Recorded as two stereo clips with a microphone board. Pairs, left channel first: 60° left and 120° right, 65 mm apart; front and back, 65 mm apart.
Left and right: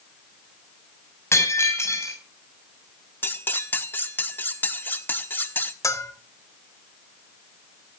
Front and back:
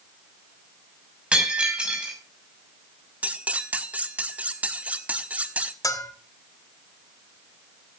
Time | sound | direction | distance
1.3 | breaking glass | 105° left | 6 m
3.2 | cutlery clinking | 115° left | 1.4 m
5.8 | a bell | 25° left | 2 m